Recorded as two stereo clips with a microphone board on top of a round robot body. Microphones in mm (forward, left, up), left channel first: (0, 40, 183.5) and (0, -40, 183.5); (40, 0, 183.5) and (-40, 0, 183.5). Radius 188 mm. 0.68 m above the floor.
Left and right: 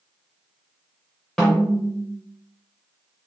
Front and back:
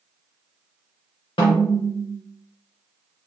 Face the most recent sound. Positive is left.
turn(degrees=5)